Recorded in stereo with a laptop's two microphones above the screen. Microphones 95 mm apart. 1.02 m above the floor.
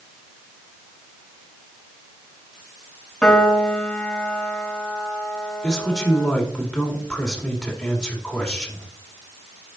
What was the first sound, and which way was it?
A piano, 5° left (ahead or behind).